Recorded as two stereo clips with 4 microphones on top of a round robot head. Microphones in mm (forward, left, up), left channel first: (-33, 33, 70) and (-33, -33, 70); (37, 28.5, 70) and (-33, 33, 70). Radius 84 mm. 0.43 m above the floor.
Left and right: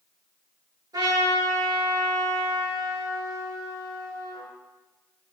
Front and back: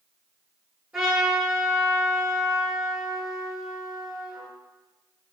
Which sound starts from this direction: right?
A trumpet, at 0.9 s.